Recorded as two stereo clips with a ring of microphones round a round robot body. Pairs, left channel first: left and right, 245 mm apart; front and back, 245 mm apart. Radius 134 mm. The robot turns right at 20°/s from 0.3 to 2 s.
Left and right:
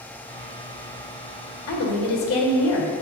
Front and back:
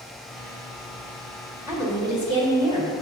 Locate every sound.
1.7 s a woman speaking: 100° left, 1.7 m; by 2.9 s 105° left, 1.7 m